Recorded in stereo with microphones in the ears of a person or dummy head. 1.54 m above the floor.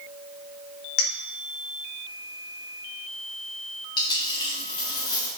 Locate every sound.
1.0 s a clink: 60° left (ahead or behind), 1.3 m
4.0 s a dropped coin: 25° left (ahead or behind), 1.8 m